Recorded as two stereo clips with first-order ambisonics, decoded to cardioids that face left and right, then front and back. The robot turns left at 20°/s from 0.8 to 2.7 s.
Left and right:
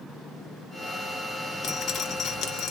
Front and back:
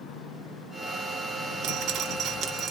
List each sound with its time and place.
1.6 s dripping: 145° left, 0.9 m; by 2.7 s 125° left, 0.9 m